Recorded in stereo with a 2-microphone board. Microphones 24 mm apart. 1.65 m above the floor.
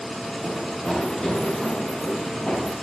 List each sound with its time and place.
0.4 s running footsteps: 20° left (ahead or behind), 7.5 m; by 2.7 s 30° left (ahead or behind), 8 m